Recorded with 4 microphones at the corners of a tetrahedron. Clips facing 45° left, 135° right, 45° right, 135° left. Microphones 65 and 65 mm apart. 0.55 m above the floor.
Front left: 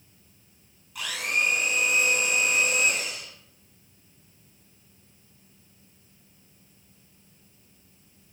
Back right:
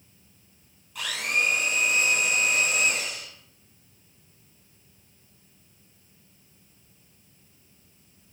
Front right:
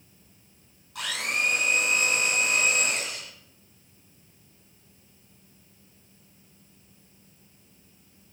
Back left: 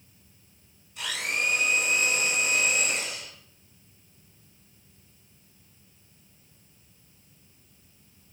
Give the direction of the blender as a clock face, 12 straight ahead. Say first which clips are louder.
Back right 1 dB, front right 1 dB; 1 o'clock.